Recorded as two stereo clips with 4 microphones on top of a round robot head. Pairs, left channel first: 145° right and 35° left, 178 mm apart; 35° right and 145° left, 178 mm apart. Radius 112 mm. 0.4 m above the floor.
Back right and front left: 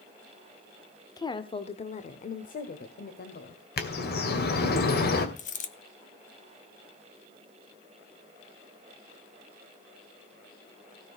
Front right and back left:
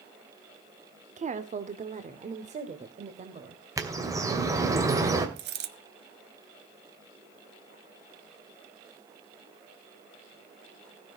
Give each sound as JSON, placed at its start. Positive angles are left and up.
{"t": 1.2, "sound": "a woman speaking", "azimuth_deg": 160, "distance_m": 1.0}
{"t": 3.8, "sound": "a bird", "azimuth_deg": -145, "distance_m": 2.5}
{"t": 5.4, "sound": "a dropped coin", "azimuth_deg": 170, "distance_m": 1.5}